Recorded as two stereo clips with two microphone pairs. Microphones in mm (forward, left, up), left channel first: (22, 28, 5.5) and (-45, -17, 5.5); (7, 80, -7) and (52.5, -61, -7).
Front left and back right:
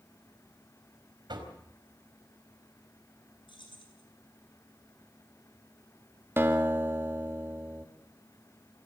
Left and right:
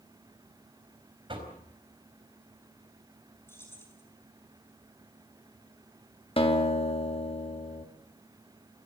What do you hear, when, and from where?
1.3 s knocking: 125° right, 4 m
3.5 s keys jangling: 35° left, 6 m
6.4 s a guitar: 155° left, 2 m